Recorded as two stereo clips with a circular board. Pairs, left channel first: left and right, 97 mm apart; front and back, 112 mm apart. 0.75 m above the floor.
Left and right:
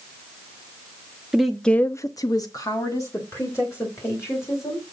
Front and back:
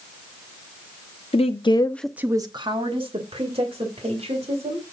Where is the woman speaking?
5° right, 0.8 m; by 4.9 s 150° left, 3.5 m.